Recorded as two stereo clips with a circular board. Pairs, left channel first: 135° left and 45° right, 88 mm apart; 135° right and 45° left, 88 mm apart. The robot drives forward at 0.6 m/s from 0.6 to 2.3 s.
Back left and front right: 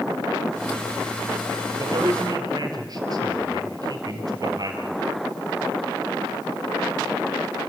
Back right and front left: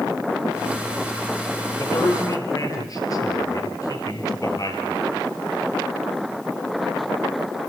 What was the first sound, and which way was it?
A man speaking, 85° right.